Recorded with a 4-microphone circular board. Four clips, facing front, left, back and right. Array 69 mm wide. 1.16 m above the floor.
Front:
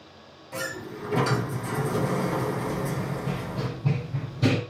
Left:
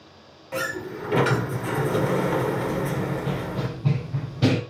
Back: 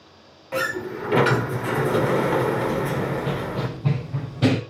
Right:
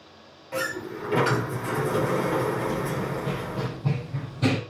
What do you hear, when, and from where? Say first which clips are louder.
0.5 s a sliding door: left 1 dB, back 8 dB; 170° left, 1.2 m
2.7 s running footsteps: left 2 dB, back 6 dB; 170° right, 2 m; by 4.6 s 150° left, 2.5 m